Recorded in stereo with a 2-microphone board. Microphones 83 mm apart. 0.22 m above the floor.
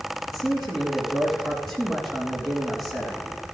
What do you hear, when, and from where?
0.3 s a man speaking: centre (ahead or behind), 4 m